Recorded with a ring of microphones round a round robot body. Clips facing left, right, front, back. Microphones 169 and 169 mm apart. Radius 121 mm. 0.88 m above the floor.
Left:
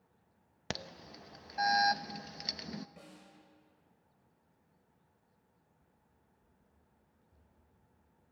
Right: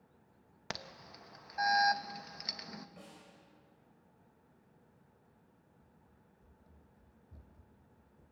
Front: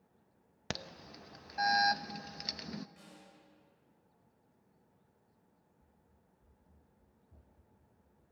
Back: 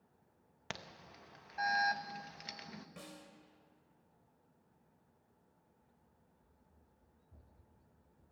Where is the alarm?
35° left, 0.8 m.